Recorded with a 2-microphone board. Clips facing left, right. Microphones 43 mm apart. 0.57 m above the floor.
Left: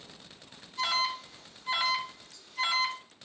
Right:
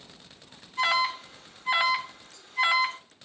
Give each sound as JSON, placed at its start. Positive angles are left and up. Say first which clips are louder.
{"t": 0.8, "sound": "an alarm", "louder": "right 5 dB", "side_deg": -40, "distance_m": 0.7}